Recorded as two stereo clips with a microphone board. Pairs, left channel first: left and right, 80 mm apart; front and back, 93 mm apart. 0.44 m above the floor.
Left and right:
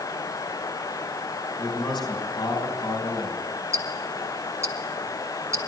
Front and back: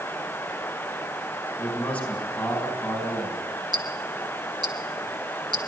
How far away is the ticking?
About 1.8 m.